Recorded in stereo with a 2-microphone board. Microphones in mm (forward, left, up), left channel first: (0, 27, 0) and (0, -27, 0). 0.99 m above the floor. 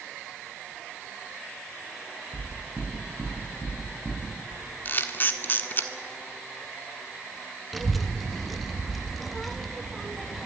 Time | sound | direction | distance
2.3 | knocking | 20° right (ahead or behind) | 8.5 m
4.8 | a camera shutter | 40° left (ahead or behind) | 1.3 m
7.7 | a child speaking | centre (ahead or behind) | 1.1 m